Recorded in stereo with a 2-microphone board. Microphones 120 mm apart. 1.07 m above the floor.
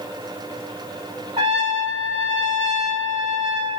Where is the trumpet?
45° right (ahead or behind), 1.9 m.